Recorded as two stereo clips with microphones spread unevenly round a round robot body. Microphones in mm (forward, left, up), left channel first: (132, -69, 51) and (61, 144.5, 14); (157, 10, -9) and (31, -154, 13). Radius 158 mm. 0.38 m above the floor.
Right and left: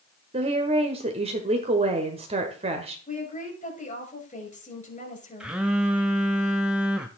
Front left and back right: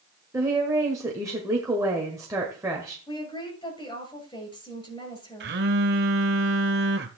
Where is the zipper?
No zipper in this recording.